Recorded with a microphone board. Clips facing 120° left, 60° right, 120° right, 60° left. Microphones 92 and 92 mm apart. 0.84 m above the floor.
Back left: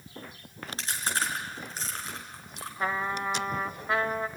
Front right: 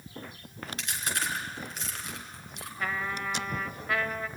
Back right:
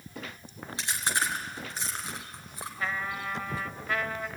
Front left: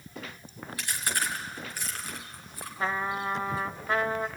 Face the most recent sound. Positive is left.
turn(degrees=85)